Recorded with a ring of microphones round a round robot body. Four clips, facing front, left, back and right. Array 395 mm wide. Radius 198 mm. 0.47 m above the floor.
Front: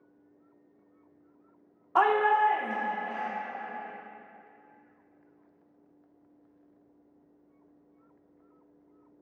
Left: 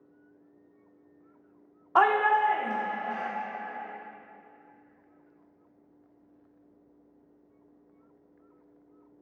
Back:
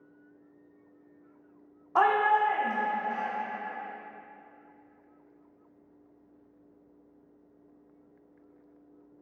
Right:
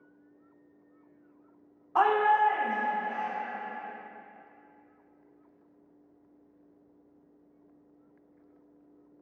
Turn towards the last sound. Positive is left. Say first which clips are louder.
# left 1 dB, even
turn(degrees=75)